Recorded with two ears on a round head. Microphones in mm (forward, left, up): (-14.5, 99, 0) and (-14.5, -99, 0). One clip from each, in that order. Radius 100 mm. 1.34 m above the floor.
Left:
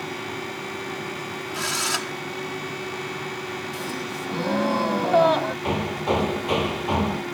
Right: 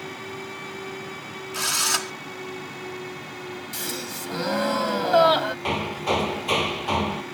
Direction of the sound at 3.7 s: 60° right (ahead or behind).